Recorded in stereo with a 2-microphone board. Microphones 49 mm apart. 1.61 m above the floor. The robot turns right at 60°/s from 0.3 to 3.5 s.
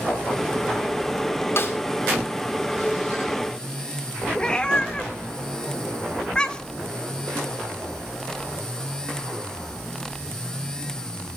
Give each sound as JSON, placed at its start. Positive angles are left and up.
{"t": 1.6, "sound": "a snare drum", "side_deg": 55, "distance_m": 2.0}
{"t": 4.3, "sound": "a cat meowing", "side_deg": 20, "distance_m": 1.0}